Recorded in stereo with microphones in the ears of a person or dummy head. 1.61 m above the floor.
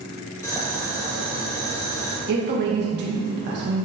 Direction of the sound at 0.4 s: 15° left (ahead or behind).